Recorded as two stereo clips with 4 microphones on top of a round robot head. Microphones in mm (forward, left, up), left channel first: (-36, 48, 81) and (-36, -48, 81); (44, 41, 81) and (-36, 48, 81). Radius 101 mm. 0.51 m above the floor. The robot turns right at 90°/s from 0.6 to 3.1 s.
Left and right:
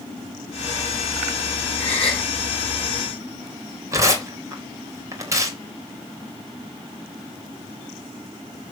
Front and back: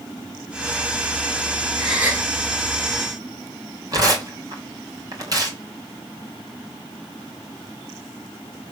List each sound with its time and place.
1.8 s a gasp: 80° left, 6.5 m; by 2.3 s 125° left, 6.5 m
3.9 s tearing paper: 145° right, 3.5 m